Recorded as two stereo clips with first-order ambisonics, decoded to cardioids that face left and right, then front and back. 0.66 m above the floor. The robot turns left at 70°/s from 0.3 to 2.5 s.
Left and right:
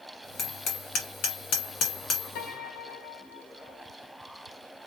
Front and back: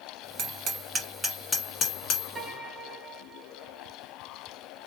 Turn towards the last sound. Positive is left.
turn(degrees=90)